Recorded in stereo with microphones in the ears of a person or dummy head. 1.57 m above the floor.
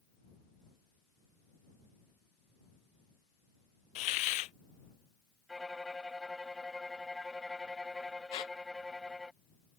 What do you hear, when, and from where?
4.0 s a hiss: 40° left (ahead or behind)
5.5 s a violin: centre (ahead or behind)
8.3 s a squeak: 30° left (ahead or behind)